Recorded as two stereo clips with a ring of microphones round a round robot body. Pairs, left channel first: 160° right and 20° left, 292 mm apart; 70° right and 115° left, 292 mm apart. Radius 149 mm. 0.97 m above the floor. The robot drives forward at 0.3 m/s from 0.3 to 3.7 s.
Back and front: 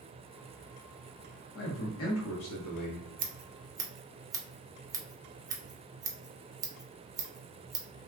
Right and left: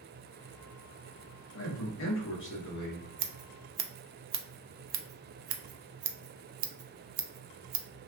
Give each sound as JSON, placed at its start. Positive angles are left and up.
{"t": 1.6, "sound": "a man speaking", "azimuth_deg": -110, "distance_m": 1.2}
{"t": 3.2, "sound": "scissors", "azimuth_deg": 85, "distance_m": 0.6}